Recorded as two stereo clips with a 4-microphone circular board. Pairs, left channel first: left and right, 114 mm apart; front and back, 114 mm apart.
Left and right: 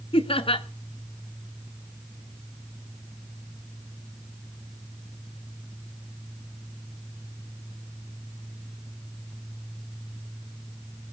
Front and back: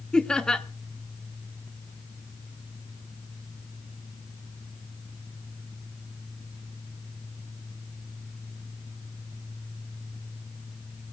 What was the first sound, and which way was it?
Laughter, 85° left.